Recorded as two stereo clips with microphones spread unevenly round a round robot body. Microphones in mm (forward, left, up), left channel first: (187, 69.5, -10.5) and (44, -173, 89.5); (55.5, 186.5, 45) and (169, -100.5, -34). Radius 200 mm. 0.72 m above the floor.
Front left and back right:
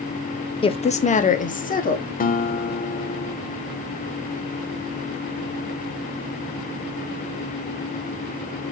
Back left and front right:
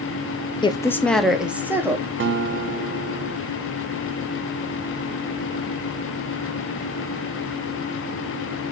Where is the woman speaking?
25° left, 0.6 m; by 2.1 s 10° left, 1.4 m.